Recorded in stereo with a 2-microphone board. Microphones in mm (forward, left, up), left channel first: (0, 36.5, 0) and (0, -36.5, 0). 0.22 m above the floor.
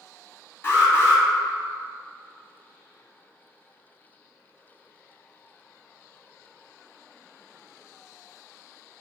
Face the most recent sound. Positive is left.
turn(degrees=35)  # may be behind; listen again after turning